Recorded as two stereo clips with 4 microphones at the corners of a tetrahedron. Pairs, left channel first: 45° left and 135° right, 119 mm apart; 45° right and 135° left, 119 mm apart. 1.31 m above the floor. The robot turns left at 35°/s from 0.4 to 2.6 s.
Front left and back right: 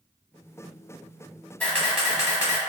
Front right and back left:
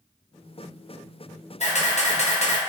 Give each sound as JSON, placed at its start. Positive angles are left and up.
{"t": 1.6, "sound": "a camera shutter", "azimuth_deg": -30, "distance_m": 0.9}